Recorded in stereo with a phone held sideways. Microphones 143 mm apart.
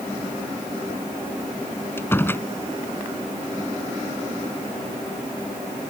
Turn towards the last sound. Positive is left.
turn(degrees=15)  # may be behind; listen again after turning